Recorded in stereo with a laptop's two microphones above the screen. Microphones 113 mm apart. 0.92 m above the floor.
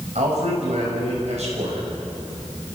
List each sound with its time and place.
0.1 s a man speaking: 80° right, 6 m